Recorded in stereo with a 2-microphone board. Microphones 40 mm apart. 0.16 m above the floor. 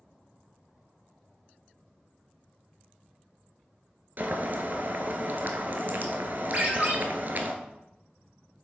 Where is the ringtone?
45° right (ahead or behind), 2 m.